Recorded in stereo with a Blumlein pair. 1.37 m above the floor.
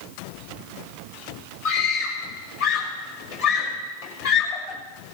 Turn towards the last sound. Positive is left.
turn(degrees=50)